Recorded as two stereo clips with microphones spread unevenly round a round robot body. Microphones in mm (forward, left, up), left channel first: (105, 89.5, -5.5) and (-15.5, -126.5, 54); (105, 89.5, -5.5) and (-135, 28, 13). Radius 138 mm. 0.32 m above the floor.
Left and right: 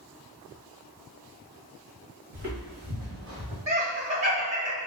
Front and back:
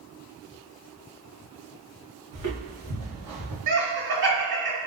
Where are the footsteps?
175° right, 1.5 m; by 3.6 s 165° right, 2 m.